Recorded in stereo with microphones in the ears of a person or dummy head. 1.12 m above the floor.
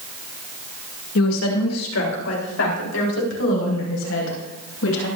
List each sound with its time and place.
1.1 s a woman speaking: 85° left, 2.5 m; by 5.1 s 70° left (ahead or behind), 6.5 m